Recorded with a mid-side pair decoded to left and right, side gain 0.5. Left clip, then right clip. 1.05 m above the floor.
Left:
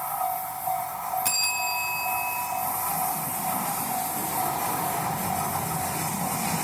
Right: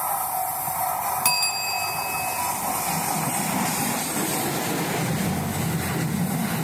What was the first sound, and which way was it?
A bell, 60° right.